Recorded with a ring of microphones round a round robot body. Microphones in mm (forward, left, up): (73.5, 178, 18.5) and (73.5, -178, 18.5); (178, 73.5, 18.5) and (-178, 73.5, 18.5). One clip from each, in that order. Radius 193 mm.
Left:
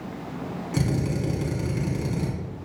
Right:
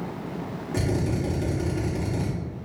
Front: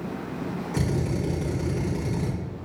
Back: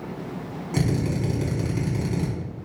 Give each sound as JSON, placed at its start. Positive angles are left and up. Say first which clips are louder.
{"t": 0.7, "sound": "a drill", "louder": "right 1 dB, back 3 dB", "azimuth_deg": 125, "distance_m": 3.0}